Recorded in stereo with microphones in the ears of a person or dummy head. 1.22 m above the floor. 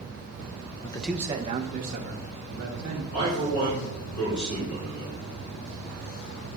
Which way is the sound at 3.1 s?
30° left (ahead or behind).